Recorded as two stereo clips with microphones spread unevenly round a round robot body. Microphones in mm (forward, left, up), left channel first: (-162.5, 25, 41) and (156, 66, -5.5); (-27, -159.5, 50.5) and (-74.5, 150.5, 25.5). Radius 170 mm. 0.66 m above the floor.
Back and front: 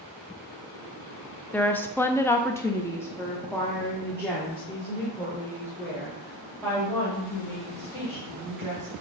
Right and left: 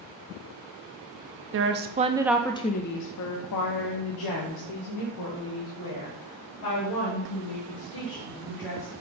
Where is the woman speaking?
95° left, 0.8 m; by 8.9 s 85° right, 4 m.